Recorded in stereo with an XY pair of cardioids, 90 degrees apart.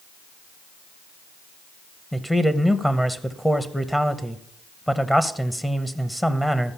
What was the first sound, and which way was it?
A man speaking, 5° left.